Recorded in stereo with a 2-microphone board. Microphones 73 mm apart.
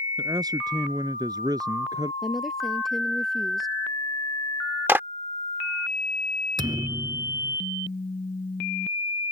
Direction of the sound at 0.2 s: 65° right (ahead or behind).